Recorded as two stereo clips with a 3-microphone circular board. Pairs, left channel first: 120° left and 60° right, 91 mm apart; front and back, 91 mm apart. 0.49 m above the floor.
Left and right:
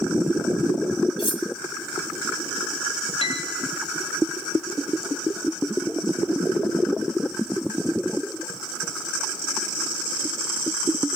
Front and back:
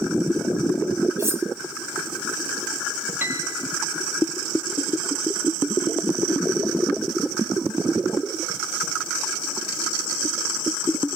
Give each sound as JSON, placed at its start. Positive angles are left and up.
{"t": 1.2, "sound": "cutlery clinking", "azimuth_deg": 120, "distance_m": 2.0}
{"t": 3.2, "sound": "a piano", "azimuth_deg": 115, "distance_m": 3.5}